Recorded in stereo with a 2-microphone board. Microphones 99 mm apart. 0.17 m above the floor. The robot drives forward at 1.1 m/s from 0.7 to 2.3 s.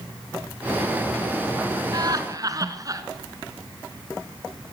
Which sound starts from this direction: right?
Laughter, at 1.9 s.